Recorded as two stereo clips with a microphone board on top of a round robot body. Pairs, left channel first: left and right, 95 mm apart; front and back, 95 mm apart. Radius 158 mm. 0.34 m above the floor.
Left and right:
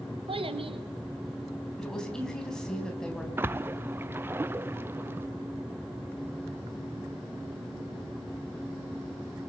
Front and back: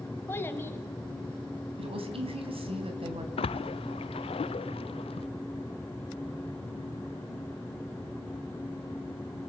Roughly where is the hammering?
No hammering in this recording.